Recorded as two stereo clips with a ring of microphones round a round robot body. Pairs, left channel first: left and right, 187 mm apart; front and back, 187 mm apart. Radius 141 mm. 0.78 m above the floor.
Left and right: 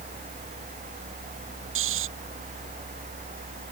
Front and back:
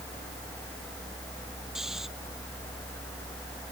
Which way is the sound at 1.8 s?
90° right.